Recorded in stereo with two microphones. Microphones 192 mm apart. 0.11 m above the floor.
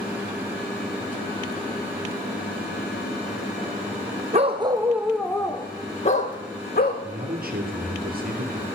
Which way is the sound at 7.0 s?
50° right (ahead or behind).